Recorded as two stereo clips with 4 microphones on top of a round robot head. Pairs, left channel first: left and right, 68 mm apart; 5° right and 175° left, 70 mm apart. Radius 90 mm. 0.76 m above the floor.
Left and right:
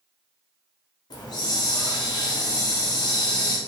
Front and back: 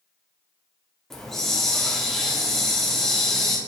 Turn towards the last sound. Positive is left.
turn(degrees=80)